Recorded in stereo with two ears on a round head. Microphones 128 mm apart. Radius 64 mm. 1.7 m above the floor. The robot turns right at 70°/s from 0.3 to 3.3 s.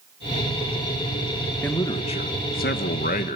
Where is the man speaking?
10° left, 1.6 m; by 3.4 s 130° left, 1.6 m.